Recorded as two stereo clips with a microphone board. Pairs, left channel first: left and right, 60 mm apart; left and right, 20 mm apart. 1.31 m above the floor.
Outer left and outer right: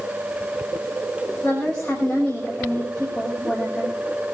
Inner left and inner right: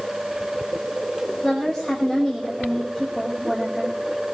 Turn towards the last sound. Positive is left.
turn(degrees=15)  # may be behind; listen again after turning